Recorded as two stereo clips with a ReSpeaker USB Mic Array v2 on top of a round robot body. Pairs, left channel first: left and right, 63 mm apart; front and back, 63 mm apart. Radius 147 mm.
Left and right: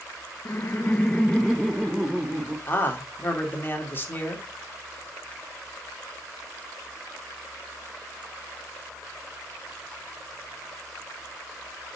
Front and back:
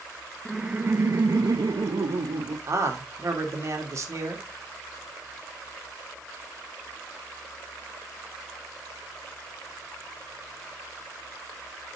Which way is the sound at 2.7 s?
140° left.